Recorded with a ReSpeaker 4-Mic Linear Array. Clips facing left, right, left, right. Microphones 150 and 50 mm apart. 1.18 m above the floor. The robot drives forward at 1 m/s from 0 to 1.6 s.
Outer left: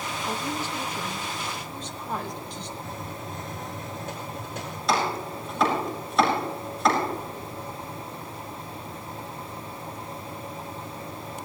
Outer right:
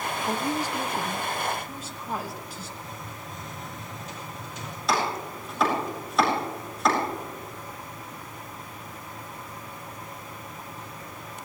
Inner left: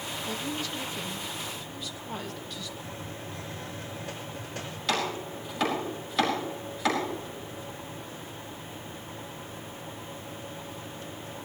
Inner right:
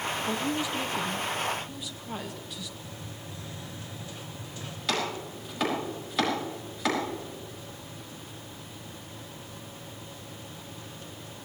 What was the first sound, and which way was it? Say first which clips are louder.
A woman speaking: outer right 3 dB, inner right 3 dB; 20° right (ahead or behind).